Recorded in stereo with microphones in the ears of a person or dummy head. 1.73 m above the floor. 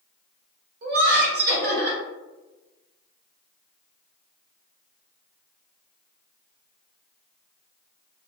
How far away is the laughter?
About 1.1 m.